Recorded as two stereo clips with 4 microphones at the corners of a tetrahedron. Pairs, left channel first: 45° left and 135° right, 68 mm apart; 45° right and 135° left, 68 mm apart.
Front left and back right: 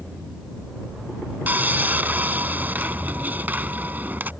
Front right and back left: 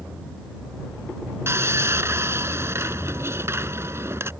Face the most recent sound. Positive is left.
turn(degrees=170)